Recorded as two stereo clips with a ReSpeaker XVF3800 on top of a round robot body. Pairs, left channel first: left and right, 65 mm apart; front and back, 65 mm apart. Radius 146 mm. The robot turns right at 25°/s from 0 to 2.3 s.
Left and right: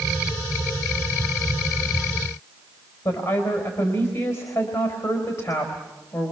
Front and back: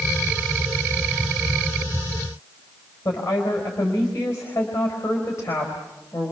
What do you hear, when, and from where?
3.0 s a woman speaking: 55° left, 4.5 m